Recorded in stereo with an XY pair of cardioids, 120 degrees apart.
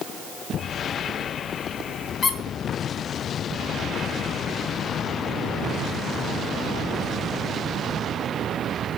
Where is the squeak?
40° left, 3 m.